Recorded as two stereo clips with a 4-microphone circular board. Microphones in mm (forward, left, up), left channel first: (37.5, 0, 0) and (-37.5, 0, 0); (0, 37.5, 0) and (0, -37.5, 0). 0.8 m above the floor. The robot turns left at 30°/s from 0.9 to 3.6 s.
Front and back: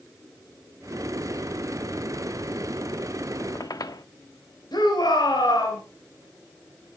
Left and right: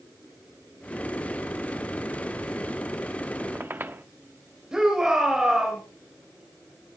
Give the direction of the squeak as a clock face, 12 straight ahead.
1 o'clock.